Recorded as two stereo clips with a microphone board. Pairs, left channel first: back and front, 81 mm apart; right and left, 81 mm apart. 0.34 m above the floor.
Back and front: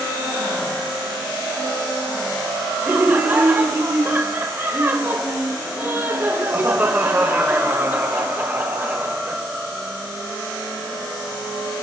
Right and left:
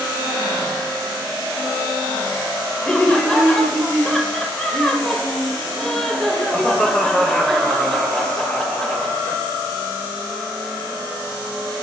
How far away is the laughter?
About 0.9 m.